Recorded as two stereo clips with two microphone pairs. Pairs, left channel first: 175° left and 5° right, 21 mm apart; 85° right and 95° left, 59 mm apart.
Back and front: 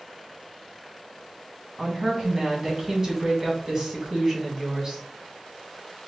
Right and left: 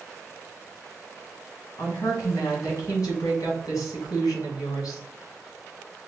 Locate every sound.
1.8 s a woman speaking: 75° right, 1.8 m